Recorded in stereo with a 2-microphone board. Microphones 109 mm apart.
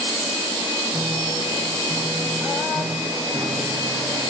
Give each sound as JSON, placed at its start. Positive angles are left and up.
{"t": 0.9, "sound": "a piano", "side_deg": -25, "distance_m": 9.5}